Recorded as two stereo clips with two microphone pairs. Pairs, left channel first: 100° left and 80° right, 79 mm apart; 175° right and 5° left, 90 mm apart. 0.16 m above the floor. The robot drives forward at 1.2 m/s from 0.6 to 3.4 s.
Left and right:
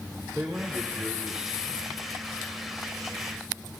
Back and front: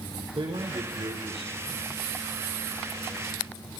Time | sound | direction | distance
0.3 | a man speaking | 5° left | 8 m